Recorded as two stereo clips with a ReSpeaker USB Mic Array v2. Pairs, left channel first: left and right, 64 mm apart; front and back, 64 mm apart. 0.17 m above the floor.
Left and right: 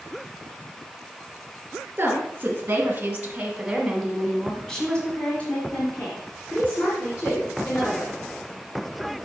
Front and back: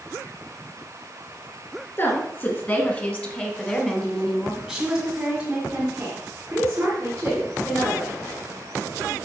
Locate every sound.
2.0 s a woman speaking: 45° right, 2.5 m; by 8.2 s 135° left, 3 m